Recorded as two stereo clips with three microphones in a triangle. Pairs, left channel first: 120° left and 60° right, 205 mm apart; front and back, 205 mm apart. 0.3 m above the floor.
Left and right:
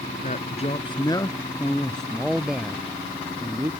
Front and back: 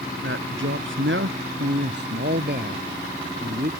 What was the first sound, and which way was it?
A man speaking, 170° left.